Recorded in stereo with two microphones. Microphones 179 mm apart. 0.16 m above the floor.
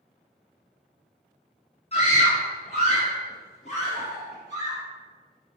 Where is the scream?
35° left (ahead or behind), 2 m.